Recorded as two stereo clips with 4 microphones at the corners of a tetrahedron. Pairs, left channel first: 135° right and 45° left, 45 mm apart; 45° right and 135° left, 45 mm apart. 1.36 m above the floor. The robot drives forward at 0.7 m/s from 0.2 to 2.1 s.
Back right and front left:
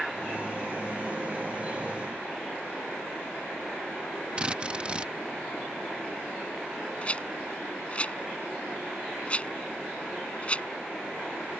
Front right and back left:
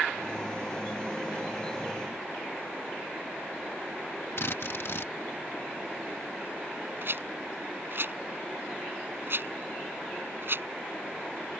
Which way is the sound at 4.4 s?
20° right.